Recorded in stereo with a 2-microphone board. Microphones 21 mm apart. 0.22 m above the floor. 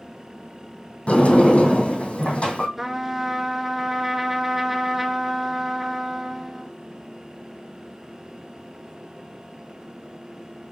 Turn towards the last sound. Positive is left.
turn(degrees=-10)  # may be behind; listen again after turning